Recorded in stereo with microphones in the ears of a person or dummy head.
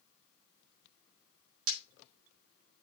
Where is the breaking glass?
80° right, 4.5 m.